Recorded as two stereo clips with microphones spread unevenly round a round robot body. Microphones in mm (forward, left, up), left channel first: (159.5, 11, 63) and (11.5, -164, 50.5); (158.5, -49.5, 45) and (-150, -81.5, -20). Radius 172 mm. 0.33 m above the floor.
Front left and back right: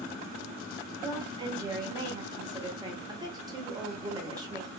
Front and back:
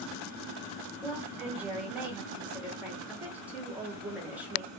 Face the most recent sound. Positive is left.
turn(degrees=-140)